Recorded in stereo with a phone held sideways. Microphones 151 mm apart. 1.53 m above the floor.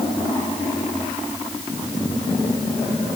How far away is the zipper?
No zipper in this recording.